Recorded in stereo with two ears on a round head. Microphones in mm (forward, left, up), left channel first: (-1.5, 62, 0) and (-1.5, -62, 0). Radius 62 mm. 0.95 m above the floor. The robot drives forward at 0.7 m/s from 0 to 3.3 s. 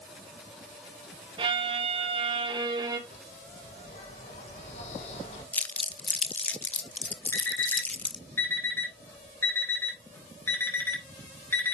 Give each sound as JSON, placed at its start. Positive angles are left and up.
{"t": 1.4, "sound": "a violin", "side_deg": -35, "distance_m": 0.8}
{"t": 3.1, "sound": "a bird", "side_deg": 60, "distance_m": 5.5}
{"t": 5.5, "sound": "crumpling", "side_deg": 10, "distance_m": 0.5}
{"t": 7.3, "sound": "an alarm clock", "side_deg": 20, "distance_m": 2.0}